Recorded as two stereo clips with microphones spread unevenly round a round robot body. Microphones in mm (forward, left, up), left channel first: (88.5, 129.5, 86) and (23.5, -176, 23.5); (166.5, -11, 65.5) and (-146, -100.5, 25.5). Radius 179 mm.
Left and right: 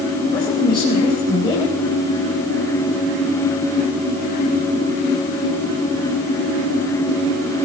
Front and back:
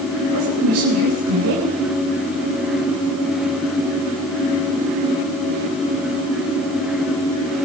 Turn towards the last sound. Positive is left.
turn(degrees=155)